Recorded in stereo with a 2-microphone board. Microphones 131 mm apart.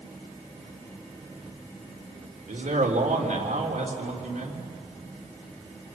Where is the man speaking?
85° right, 3.5 m.